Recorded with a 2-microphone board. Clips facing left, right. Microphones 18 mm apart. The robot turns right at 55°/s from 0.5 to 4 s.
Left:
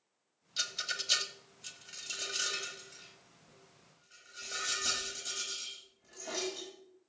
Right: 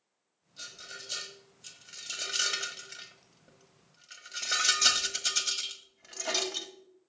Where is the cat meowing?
No cat meowing in this recording.